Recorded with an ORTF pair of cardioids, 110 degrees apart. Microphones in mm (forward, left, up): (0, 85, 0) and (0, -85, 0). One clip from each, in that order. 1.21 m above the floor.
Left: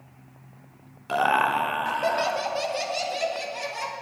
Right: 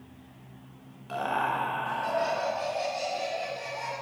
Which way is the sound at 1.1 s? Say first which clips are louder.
Left 7 dB; 50° left.